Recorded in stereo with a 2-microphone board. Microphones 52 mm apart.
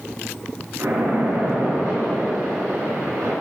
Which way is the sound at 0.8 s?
75° right (ahead or behind).